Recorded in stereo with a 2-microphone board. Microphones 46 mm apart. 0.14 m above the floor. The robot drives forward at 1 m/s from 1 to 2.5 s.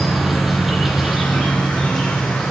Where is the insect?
5° right (ahead or behind), 1.9 m; by 2.5 s centre (ahead or behind), 3.5 m.